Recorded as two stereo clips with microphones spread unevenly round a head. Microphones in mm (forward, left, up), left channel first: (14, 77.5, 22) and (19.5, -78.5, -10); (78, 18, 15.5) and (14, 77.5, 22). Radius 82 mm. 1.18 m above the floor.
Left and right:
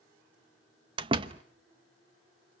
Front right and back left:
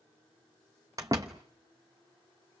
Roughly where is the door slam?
Behind right.